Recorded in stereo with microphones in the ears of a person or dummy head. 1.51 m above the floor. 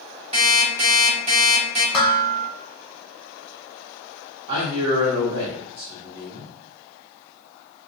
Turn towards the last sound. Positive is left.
turn(degrees=-30)  # may be behind; listen again after turning